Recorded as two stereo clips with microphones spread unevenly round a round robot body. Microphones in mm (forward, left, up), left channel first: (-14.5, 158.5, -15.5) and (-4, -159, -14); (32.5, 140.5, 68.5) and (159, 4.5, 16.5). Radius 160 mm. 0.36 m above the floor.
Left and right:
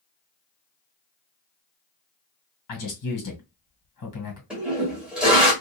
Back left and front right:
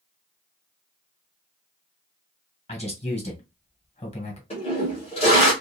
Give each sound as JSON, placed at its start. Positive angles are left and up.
{"t": 2.7, "sound": "a man speaking", "azimuth_deg": 70, "distance_m": 1.7}
{"t": 4.5, "sound": "a toilet flushing", "azimuth_deg": -170, "distance_m": 1.3}